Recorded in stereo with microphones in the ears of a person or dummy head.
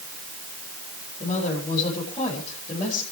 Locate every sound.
1.2 s a woman speaking: 30° left (ahead or behind), 6.5 m